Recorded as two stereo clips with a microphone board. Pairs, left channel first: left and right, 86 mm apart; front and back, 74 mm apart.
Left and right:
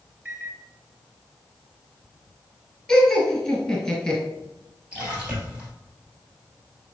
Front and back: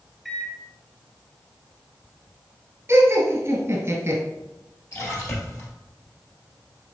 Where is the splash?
20° right, 1.9 m.